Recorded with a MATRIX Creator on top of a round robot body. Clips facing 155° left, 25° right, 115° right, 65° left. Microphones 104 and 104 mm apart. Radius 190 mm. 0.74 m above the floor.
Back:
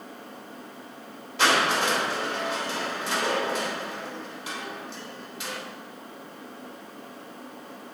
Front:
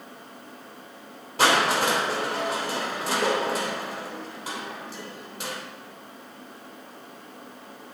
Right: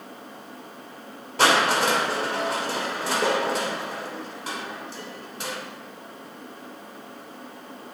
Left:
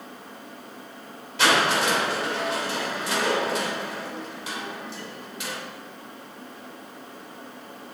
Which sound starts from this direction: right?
Crushing, at 1.4 s.